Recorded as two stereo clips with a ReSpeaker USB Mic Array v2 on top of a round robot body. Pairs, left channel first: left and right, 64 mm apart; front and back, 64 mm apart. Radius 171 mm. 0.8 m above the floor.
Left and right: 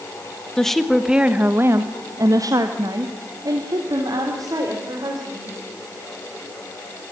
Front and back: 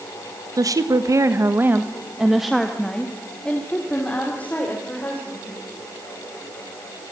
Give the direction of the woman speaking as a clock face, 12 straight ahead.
6 o'clock.